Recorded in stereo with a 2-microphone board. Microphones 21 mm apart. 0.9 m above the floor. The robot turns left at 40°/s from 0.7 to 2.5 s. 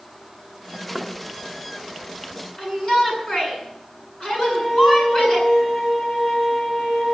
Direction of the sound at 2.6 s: 35° left (ahead or behind).